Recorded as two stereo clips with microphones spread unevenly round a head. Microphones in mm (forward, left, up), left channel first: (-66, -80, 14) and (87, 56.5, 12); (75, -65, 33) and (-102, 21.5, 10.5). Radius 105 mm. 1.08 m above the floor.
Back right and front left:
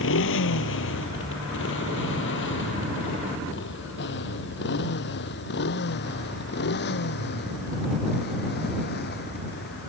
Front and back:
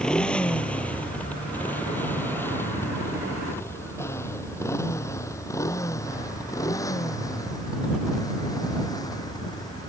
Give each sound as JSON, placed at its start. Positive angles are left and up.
{"t": 0.0, "sound": "a motorcycle", "azimuth_deg": -110}